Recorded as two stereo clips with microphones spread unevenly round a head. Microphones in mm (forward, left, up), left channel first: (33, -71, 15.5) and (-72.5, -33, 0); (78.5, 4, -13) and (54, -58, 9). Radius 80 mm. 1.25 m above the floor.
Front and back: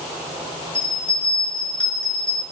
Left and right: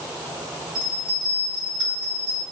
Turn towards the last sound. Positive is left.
turn(degrees=-100)